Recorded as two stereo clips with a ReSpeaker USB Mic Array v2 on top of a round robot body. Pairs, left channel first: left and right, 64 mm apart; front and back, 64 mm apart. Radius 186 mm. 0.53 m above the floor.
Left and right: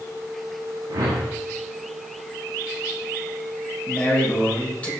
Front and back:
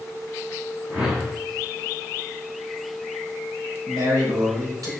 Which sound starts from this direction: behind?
A man speaking, at 3.9 s.